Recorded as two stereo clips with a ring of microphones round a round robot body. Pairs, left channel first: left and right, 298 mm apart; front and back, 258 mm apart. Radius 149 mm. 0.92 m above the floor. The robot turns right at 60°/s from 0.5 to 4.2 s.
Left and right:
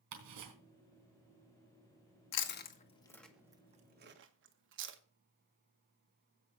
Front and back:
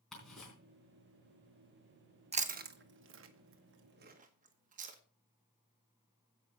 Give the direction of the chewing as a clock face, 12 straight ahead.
8 o'clock.